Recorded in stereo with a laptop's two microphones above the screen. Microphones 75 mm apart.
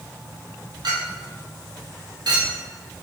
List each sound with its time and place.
0.8 s a clink: 70° right (ahead or behind), 0.9 m